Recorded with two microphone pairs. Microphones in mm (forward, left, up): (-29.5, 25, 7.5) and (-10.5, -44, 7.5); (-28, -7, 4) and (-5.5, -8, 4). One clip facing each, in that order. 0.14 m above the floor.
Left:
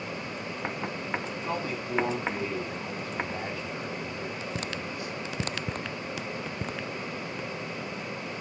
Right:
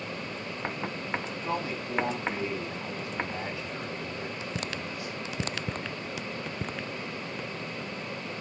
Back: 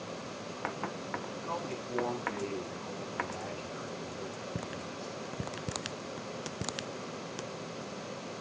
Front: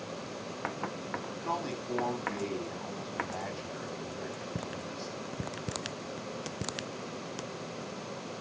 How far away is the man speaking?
About 7.5 m.